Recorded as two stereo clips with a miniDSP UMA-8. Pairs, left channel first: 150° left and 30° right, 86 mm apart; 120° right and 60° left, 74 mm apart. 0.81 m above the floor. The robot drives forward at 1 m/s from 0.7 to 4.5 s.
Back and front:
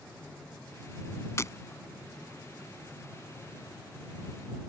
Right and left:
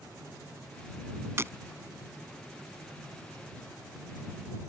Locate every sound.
1.4 s breaking glass: 105° left; by 1.5 s 110° left